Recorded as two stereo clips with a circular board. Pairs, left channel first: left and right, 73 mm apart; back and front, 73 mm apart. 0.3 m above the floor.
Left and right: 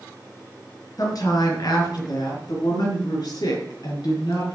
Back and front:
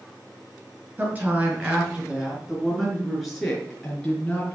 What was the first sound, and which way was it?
A woman speaking, 65° left.